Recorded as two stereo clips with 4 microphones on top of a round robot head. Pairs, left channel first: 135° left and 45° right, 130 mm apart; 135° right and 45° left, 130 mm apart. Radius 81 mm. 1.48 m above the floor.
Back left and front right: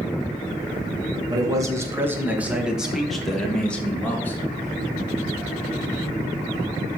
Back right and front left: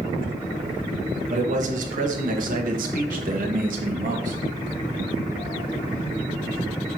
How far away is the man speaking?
About 1.9 m.